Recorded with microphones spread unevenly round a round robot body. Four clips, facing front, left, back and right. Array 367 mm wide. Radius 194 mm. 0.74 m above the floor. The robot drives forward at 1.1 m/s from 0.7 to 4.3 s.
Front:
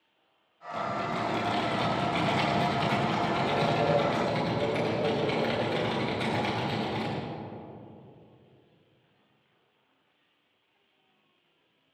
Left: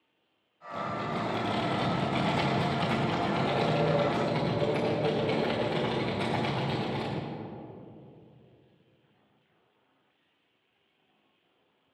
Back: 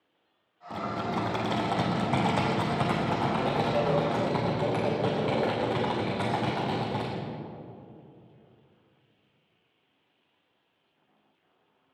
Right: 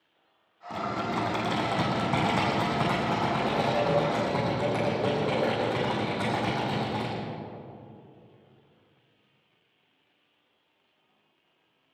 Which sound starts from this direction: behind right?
Typing on a keyboard, at 0.7 s.